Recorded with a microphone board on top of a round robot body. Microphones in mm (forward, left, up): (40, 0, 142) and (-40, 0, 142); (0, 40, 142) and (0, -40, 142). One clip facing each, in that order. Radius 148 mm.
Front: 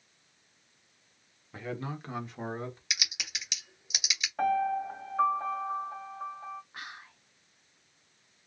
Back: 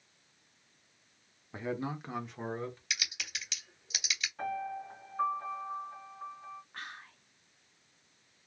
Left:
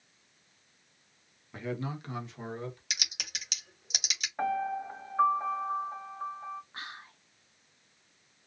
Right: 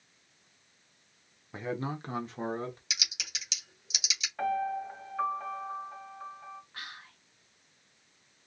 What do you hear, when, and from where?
1.5 s a man speaking: 140° right, 1.2 m; by 2.8 s 70° right, 1.5 m
2.9 s typing on a keyboard: 70° left, 2.5 m
4.4 s a piano: 20° left, 1.8 m
6.7 s whispering: 75° left, 1.2 m